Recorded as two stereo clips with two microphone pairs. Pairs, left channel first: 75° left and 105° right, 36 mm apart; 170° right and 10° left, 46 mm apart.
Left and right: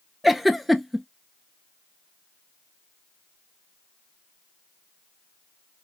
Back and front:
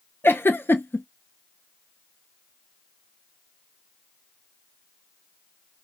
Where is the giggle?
170° left, 0.6 m.